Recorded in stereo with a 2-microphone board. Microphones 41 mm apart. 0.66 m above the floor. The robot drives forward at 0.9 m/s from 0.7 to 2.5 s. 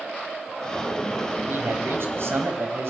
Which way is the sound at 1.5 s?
65° right (ahead or behind).